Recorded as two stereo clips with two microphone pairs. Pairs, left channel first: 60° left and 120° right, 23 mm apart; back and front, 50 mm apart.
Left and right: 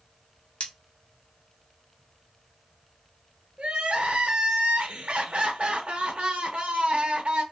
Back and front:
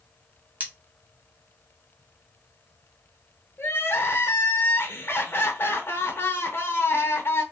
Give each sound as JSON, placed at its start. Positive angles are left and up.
{"t": 0.6, "sound": "cutlery clinking", "azimuth_deg": 60, "distance_m": 0.5}
{"t": 3.6, "sound": "crying", "azimuth_deg": -140, "distance_m": 0.7}